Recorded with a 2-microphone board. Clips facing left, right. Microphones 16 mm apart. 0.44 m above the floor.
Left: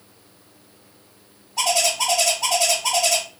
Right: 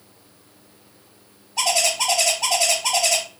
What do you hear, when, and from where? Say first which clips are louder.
1.6 s a bird: even; 20° right (ahead or behind), 3 m